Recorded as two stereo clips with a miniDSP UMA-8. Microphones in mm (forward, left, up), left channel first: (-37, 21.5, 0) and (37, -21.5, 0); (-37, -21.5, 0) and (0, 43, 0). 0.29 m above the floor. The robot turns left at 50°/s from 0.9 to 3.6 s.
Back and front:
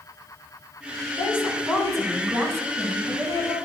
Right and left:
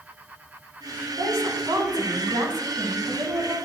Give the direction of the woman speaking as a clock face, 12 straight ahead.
9 o'clock.